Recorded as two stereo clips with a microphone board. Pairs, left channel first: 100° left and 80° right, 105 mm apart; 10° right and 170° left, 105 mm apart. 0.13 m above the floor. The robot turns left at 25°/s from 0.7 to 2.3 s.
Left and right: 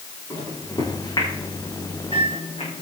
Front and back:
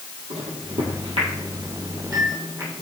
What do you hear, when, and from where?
0.3 s a microwave: 155° left, 4.5 m; by 2.8 s 115° left, 4.5 m